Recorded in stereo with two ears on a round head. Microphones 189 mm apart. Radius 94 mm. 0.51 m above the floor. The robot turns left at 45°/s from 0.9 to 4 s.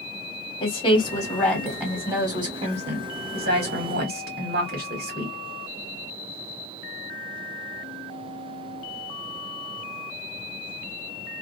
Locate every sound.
0.6 s a woman speaking: 35° left, 1.7 m; by 5.3 s 105° right, 1.7 m